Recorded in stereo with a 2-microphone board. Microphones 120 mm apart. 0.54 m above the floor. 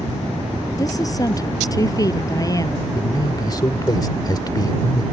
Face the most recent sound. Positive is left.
turn(degrees=35)  # may be behind; listen again after turning